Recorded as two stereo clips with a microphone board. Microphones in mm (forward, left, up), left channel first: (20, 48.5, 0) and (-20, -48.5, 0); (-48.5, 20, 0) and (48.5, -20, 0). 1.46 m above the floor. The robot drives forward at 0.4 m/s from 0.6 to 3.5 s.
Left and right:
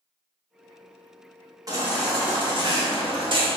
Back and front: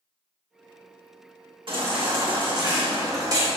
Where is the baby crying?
55° right, 1.9 m; by 3.5 s 80° right, 1.6 m.